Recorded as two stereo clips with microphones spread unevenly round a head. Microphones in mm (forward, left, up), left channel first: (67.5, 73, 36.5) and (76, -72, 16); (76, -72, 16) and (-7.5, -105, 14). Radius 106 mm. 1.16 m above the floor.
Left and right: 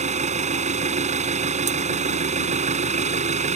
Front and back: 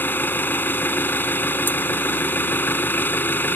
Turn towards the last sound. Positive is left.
turn(degrees=-45)